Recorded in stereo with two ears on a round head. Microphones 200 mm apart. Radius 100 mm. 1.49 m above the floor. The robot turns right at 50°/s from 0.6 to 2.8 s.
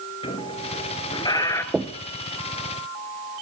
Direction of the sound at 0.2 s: 25° left (ahead or behind).